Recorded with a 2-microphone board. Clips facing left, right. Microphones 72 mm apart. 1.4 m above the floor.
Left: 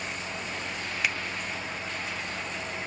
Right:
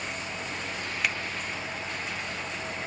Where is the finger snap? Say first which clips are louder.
Even; centre (ahead or behind).